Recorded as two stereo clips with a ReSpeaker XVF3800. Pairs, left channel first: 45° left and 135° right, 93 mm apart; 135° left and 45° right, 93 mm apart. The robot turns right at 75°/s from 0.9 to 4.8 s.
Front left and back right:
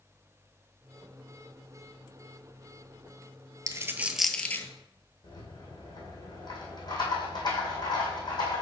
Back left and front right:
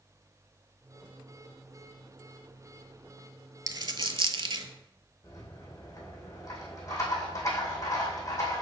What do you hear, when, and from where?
3.7 s a dropped coin: 90° right, 0.5 m; by 4.7 s 15° right, 0.5 m
5.2 s a rattle: 80° left, 2.5 m